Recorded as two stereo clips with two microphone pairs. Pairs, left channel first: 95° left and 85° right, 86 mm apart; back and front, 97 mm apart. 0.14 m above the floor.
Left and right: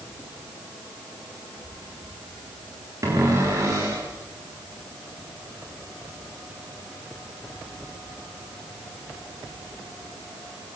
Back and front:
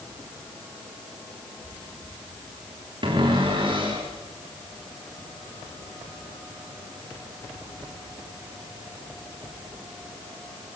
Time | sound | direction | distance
3.0 | a cupboard door | 30° right | 7.5 m